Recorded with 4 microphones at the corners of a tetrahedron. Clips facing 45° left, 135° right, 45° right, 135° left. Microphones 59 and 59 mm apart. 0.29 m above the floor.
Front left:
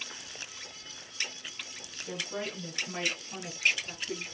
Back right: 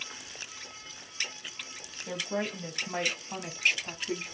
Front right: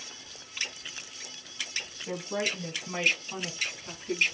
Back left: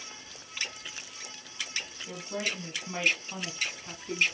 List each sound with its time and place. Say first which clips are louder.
2.1 s a woman speaking: back right 4 dB, front right 4 dB; 105° right, 2.5 m; by 4.2 s 140° right, 3 m